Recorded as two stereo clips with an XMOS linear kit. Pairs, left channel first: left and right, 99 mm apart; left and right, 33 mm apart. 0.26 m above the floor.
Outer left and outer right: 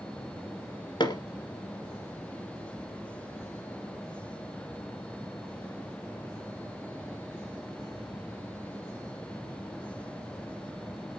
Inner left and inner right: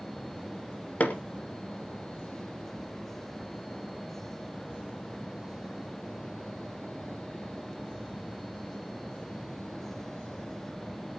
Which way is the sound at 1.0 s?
50° left (ahead or behind).